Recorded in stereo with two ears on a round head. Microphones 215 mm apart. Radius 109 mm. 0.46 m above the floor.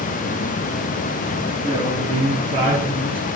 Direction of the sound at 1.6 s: 20° right (ahead or behind).